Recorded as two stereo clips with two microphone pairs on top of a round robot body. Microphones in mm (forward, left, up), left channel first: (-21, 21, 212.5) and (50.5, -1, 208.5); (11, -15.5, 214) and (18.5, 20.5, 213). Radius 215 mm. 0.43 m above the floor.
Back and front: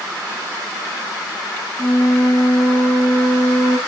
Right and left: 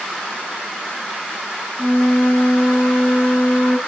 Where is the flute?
150° right, 1.0 m.